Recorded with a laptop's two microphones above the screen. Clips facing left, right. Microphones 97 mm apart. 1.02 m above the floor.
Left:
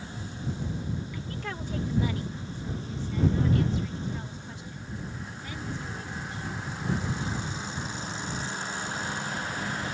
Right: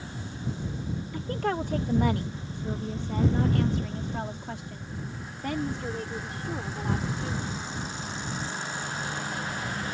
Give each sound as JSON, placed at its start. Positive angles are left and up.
{"t": 1.1, "sound": "a woman speaking", "side_deg": -45}